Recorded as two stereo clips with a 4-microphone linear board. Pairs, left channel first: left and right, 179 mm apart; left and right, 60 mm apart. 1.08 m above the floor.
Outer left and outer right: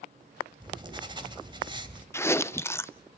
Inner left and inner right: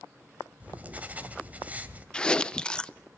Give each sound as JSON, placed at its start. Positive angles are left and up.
{"t": 0.6, "sound": "writing", "side_deg": -25, "distance_m": 1.9}
{"t": 2.1, "sound": "chewing", "side_deg": 15, "distance_m": 0.6}